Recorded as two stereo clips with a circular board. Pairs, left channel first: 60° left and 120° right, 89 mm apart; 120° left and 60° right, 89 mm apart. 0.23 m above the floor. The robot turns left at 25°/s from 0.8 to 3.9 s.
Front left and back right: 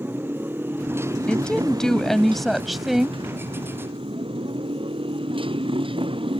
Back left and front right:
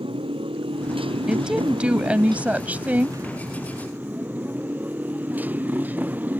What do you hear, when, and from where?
0.0 s a motorcycle: 55° right; by 6.4 s 130° right
1.3 s a woman speaking: 5° left; by 3.2 s 45° right